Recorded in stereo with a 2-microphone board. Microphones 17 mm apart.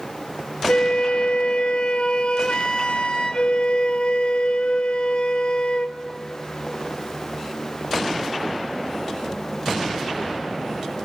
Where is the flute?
75° left (ahead or behind), 0.9 m.